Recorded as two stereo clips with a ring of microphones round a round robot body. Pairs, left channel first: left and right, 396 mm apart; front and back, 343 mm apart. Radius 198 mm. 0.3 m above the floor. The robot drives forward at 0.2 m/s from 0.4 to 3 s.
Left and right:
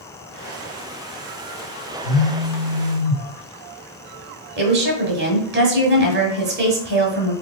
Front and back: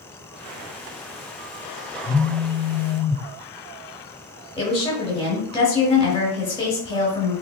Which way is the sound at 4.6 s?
60° right.